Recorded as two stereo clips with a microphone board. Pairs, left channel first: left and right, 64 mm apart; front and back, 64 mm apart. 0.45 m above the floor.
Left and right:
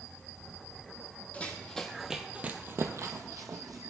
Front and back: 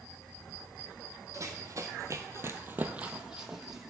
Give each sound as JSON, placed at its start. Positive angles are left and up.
{"t": 1.3, "sound": "running footsteps", "azimuth_deg": 155, "distance_m": 0.9}